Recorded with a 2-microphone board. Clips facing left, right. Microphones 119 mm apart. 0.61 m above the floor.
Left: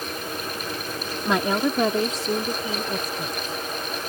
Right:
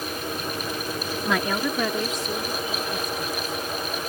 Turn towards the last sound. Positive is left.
turn(degrees=40)  # may be behind; listen again after turning